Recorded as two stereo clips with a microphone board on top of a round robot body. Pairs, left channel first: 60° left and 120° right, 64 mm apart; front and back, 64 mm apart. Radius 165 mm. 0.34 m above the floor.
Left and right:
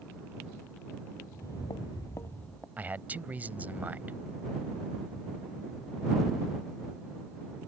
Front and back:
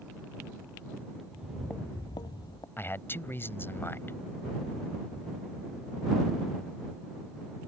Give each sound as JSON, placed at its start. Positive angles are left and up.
{"t": 1.3, "sound": "footsteps", "azimuth_deg": 110}
{"t": 2.8, "sound": "a man speaking", "azimuth_deg": -55}